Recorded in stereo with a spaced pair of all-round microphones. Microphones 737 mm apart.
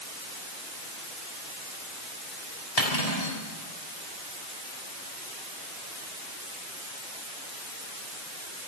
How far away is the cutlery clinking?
About 6.5 m.